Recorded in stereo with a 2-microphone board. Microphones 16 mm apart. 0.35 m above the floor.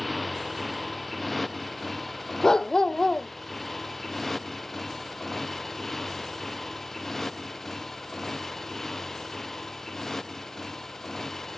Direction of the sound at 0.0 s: 10° left (ahead or behind).